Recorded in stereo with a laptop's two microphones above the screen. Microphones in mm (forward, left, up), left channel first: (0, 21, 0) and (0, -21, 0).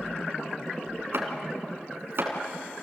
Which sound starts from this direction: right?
Chopping, at 1.1 s.